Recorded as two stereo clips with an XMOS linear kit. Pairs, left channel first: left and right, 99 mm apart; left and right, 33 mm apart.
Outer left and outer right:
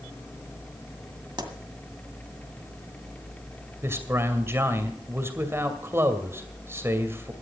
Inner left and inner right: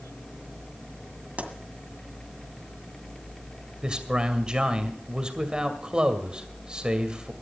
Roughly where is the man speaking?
Right.